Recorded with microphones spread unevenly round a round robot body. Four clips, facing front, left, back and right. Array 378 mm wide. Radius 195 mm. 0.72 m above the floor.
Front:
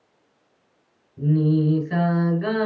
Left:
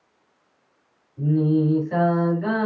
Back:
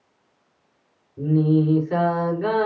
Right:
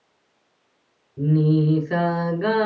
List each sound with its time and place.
1.2 s singing: 80° right, 5.5 m